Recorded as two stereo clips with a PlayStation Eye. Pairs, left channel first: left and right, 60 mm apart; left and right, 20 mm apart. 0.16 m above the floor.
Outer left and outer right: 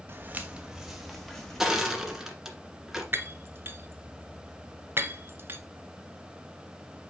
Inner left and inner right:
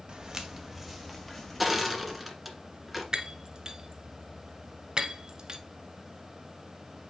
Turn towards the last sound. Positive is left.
turn(degrees=-40)  # may be behind; listen again after turning